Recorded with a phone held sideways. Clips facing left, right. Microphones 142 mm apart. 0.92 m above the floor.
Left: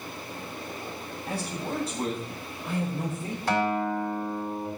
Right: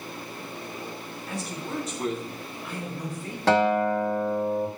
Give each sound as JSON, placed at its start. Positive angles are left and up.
{"t": 1.3, "sound": "a man speaking", "side_deg": 35, "distance_m": 6.0}
{"t": 3.5, "sound": "a guitar", "side_deg": -75, "distance_m": 2.0}